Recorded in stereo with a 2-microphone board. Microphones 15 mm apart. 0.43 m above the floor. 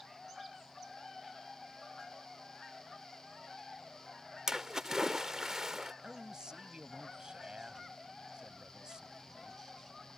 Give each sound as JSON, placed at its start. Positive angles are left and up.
{"t": 4.5, "sound": "a splash", "side_deg": -40}
{"t": 6.0, "sound": "a man speaking", "side_deg": -45}